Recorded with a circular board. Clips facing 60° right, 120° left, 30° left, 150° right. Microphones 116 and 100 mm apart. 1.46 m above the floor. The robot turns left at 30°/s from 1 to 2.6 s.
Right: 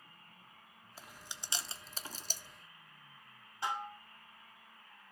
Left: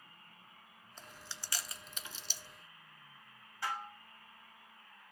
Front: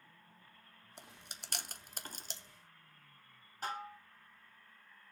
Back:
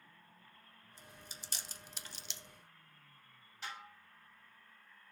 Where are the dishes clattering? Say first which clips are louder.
Right 2 dB, front 7 dB; straight ahead, 0.8 m.